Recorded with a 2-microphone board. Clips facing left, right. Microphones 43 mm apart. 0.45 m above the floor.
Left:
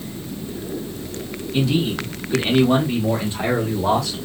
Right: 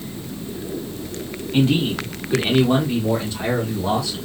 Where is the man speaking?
45° right (ahead or behind), 1.7 m; by 4.2 s 50° left (ahead or behind), 2 m.